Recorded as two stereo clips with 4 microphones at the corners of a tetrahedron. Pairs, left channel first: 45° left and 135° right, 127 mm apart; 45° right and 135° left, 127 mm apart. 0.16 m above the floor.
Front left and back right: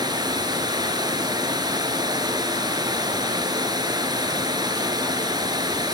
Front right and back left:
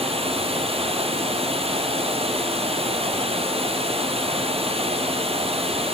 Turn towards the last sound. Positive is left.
turn(degrees=170)